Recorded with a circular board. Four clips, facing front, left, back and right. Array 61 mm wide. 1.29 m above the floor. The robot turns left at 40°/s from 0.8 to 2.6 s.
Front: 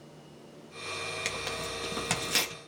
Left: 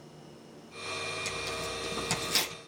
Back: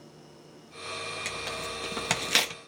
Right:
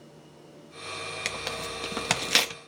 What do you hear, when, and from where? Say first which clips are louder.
1.2 s tearing paper: right 2 dB, even; 75° right, 0.8 m; by 2.5 s 125° right, 0.8 m